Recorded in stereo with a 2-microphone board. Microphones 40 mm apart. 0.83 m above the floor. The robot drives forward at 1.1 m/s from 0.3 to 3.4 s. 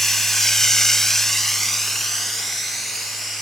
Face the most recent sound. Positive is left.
turn(degrees=0)  # may be behind; listen again after turning